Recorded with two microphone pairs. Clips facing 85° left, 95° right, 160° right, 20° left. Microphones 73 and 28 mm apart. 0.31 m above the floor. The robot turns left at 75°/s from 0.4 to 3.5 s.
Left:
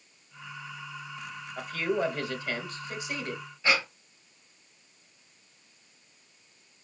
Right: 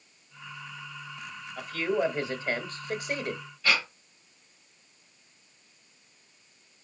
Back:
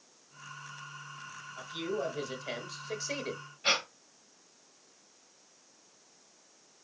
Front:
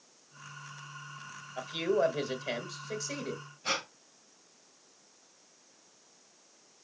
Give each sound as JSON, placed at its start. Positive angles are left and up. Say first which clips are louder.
{"t": 1.6, "sound": "a man speaking", "louder": "right 1 dB, front 7 dB", "azimuth_deg": 5, "distance_m": 1.4}
{"t": 3.6, "sound": "breathing", "louder": "left 1 dB, back 4 dB", "azimuth_deg": 155, "distance_m": 1.4}